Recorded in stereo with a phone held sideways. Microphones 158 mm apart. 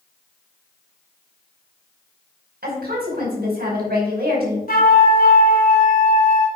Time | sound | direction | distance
2.6 | a woman speaking | 75° right (ahead or behind) | 5.5 m
4.7 | a flute | 65° left (ahead or behind) | 2 m